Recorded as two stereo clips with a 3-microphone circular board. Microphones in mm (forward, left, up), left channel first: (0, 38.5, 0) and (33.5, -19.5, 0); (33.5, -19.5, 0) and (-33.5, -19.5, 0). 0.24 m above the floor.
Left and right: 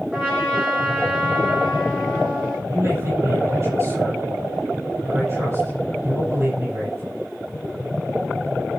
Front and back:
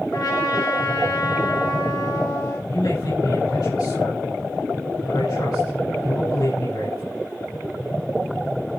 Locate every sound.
0.1 s a trumpet: 15° left, 6 m
2.7 s a man speaking: 15° right, 7.5 m